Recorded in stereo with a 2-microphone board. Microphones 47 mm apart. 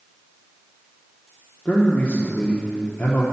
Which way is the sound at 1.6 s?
35° left (ahead or behind).